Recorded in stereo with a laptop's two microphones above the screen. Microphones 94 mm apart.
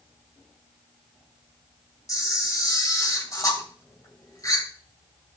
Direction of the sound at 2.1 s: 35° left (ahead or behind).